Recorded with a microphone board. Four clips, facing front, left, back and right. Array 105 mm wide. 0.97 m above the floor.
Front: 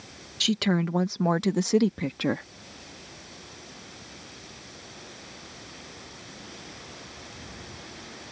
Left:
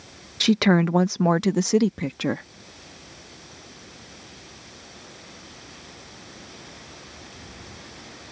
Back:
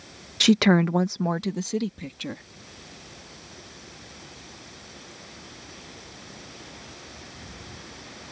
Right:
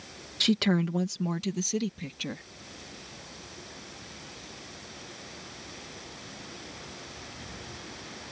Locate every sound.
0.4 s a woman speaking: 155° left; by 2.5 s 50° left